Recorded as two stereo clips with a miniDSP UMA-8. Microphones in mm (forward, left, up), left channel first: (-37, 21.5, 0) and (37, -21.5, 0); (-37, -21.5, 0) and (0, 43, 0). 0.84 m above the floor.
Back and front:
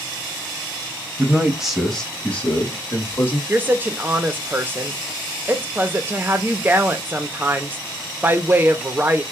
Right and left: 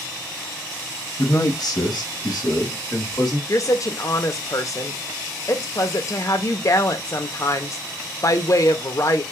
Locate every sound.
1.2 s a man speaking: 95° right, 1.0 m; by 3.4 s 150° right, 2 m
3.5 s a woman speaking: 95° right, 0.6 m